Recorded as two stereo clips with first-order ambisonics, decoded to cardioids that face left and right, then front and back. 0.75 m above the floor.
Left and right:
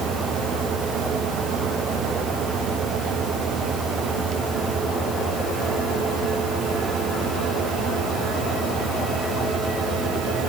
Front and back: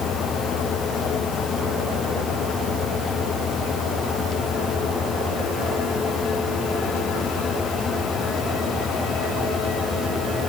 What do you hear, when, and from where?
Only background noise.